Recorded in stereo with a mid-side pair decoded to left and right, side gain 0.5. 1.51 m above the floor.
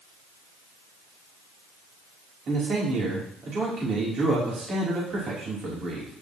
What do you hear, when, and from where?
2.5 s a man speaking: 50° right, 3.5 m